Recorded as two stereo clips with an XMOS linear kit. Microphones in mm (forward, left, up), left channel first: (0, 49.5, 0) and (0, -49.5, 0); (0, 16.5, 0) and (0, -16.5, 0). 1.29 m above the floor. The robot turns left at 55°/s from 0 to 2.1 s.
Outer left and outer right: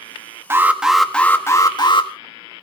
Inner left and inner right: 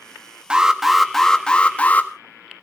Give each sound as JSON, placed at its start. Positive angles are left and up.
{"t": 0.5, "sound": "an alarm", "azimuth_deg": -155, "distance_m": 1.6}